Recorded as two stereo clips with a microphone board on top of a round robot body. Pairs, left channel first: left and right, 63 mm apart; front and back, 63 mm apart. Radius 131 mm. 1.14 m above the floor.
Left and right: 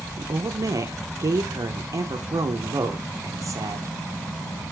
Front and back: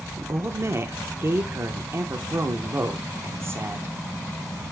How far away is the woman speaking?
About 0.8 m.